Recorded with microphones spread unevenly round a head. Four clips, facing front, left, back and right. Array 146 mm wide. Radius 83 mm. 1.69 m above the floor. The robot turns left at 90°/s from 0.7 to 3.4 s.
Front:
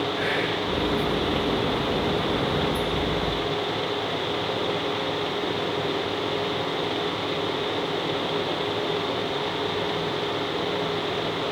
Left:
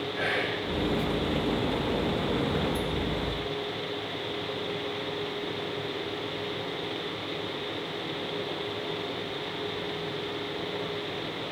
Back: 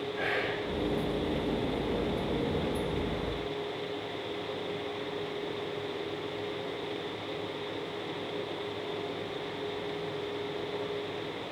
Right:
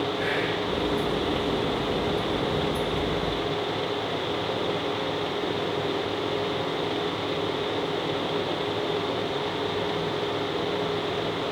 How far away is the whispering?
About 2.5 m.